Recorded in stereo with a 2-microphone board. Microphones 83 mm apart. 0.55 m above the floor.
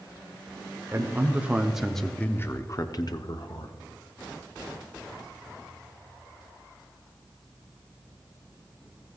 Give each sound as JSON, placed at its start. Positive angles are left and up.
{"t": 0.9, "sound": "a man speaking", "side_deg": -30, "distance_m": 1.3}